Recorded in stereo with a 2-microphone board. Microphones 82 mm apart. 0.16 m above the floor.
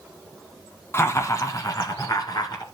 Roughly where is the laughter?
Left.